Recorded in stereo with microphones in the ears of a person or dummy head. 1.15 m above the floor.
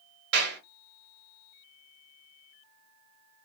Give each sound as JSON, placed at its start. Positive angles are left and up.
{"t": 0.3, "sound": "a clap", "side_deg": -55, "distance_m": 1.0}